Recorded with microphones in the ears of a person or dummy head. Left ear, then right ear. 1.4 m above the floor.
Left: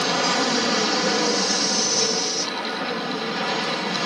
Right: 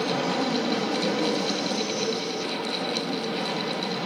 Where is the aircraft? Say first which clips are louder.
Left 5 dB; 60° left (ahead or behind).